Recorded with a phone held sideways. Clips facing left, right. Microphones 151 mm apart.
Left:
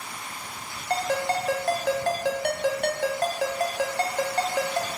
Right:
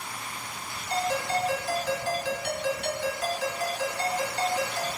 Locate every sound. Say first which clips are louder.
0.9 s a ringtone: left 2 dB; 60° left (ahead or behind), 0.5 m